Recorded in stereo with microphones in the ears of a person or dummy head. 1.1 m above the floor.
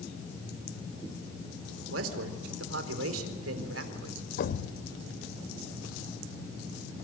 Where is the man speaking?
85° right, 3.5 m.